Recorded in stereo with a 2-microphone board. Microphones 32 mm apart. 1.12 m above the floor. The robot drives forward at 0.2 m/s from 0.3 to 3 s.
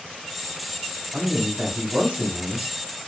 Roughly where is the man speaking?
Right.